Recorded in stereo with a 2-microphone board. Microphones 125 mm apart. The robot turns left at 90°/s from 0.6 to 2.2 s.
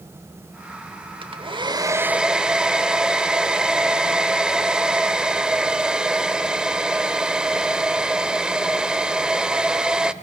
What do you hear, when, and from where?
1.2 s a hair dryer: 80° right, 0.9 m; by 10.1 s 170° right, 0.9 m